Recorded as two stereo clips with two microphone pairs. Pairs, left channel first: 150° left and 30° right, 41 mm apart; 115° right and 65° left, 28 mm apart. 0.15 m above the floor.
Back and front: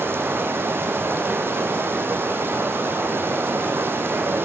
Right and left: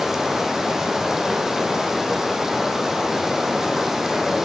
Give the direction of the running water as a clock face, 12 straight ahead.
12 o'clock.